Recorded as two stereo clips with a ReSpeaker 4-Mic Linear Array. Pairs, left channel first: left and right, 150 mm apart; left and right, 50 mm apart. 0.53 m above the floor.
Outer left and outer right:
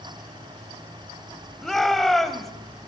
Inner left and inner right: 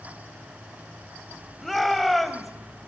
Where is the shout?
Centre (ahead or behind), 2.5 m.